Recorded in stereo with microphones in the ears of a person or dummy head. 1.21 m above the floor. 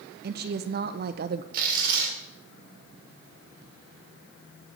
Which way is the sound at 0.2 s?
50° right (ahead or behind).